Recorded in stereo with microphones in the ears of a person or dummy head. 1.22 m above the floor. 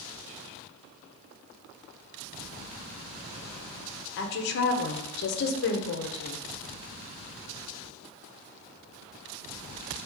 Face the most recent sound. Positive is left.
turn(degrees=55)  # may be behind; listen again after turning